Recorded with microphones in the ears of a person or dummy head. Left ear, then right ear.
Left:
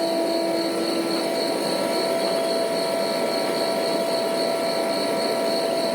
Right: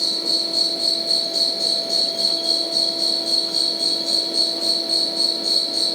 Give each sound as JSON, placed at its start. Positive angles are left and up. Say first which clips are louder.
{"t": 0.0, "sound": "an insect", "louder": "right 1 dB", "side_deg": -80}